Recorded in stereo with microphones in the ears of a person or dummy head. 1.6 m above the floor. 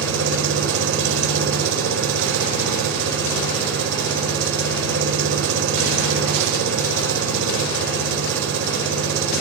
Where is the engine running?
80° right, 5 m.